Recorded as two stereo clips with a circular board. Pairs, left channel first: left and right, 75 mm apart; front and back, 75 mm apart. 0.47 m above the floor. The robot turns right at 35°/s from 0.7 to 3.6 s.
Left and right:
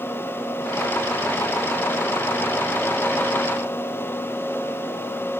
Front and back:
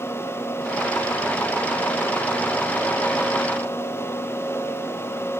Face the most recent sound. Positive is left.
No sound to turn to.